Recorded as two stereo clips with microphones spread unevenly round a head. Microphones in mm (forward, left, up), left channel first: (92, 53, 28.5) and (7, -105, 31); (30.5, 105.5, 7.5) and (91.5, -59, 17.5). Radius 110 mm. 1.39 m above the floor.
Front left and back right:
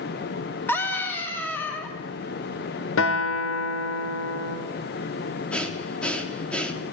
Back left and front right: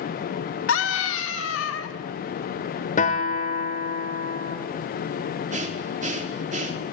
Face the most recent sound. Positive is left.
turn(degrees=-20)